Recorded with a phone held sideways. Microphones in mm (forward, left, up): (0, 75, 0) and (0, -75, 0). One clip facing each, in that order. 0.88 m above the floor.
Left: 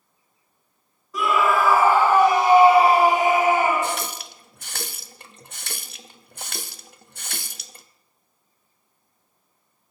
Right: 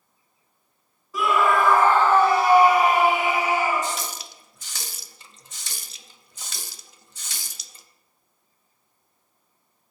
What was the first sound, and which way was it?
A scream, centre (ahead or behind).